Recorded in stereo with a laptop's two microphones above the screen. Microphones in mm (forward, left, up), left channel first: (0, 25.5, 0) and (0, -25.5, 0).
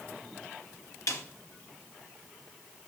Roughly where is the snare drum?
Left.